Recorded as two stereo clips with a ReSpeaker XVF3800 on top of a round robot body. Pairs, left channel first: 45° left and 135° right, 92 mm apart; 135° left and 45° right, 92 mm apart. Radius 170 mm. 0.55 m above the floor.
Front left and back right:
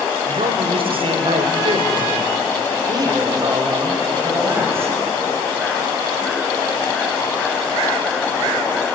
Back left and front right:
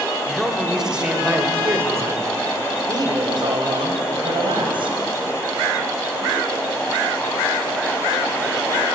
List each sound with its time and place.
0.2 s a man speaking: 140° right, 3 m; by 5.0 s 70° right, 5 m